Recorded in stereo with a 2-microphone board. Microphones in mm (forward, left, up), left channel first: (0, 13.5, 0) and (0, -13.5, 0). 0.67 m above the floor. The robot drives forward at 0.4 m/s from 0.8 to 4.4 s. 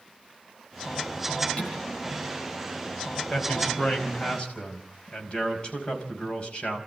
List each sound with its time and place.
1.6 s dishes clattering: 40° left (ahead or behind), 9.5 m
3.3 s a man speaking: 45° left (ahead or behind), 5 m; by 6.8 s 40° left (ahead or behind), 5 m